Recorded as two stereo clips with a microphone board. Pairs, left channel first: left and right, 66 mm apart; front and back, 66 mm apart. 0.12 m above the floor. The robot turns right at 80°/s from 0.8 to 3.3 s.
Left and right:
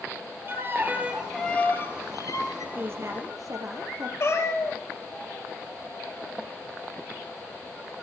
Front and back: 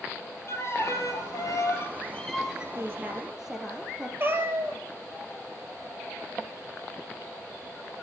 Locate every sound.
0.5 s a violin: 40° right, 1.6 m; by 2.6 s 110° left, 1.6 m
2.8 s a woman speaking: 145° right, 2.5 m; by 4.1 s 100° right, 2.5 m
4.2 s a cat meowing: 130° left, 1.2 m